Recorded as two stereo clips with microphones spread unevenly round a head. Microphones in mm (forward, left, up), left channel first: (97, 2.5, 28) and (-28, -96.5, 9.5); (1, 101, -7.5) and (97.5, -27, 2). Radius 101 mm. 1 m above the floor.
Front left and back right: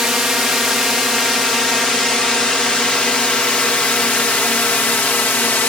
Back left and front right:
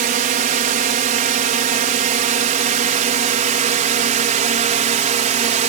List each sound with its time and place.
0.0 s a drone: 60° right; by 5.7 s 40° right